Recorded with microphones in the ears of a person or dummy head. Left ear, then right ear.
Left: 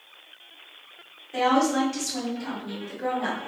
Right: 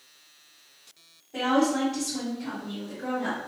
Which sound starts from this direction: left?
A woman speaking, at 1.3 s.